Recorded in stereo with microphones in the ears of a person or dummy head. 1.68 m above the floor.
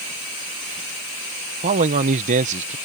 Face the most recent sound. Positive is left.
turn(degrees=-40)  # may be behind; listen again after turning